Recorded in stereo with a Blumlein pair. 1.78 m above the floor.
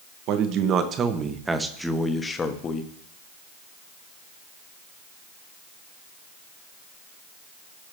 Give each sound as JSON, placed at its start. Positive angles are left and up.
{"t": 0.3, "sound": "a man speaking", "azimuth_deg": -40, "distance_m": 1.5}